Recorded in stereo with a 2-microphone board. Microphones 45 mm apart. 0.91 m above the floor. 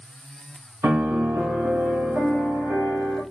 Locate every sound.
0.8 s a piano: 50° right (ahead or behind), 1.2 m